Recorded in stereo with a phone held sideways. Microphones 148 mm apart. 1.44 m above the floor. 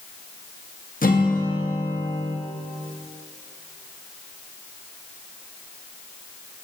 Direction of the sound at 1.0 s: 75° left (ahead or behind).